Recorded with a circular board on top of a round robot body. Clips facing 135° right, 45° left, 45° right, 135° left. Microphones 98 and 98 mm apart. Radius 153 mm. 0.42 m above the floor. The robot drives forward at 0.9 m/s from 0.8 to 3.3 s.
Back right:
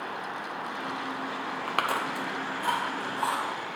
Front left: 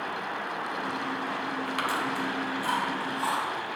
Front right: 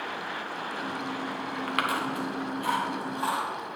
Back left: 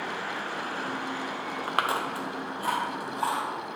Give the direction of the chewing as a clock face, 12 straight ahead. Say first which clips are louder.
Back right 2 dB, back left 1 dB; 5 o'clock.